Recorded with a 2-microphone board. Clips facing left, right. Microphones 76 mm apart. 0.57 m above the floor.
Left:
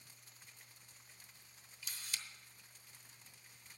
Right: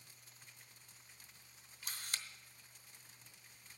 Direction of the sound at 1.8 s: 50° right (ahead or behind).